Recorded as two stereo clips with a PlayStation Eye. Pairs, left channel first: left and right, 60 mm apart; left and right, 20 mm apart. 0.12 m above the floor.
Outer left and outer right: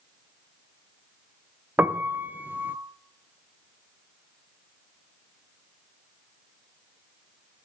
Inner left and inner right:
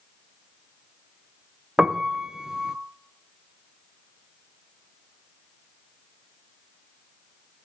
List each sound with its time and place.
1.8 s a piano: 30° right (ahead or behind), 0.6 m